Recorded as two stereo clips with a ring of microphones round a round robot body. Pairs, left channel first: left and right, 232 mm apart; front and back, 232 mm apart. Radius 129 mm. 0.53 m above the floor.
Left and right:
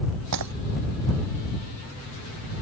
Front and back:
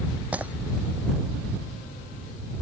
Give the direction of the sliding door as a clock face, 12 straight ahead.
No sliding door in this recording.